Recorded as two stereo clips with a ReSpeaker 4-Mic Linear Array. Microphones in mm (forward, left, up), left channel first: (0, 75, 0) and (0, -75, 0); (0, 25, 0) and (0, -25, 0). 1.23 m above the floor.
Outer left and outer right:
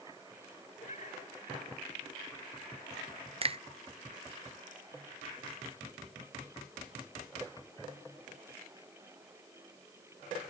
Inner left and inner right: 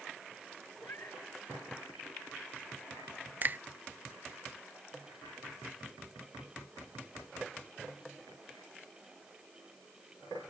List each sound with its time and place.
0.8 s a cat meowing: 50° left (ahead or behind)
3.4 s a finger snap: 40° right (ahead or behind)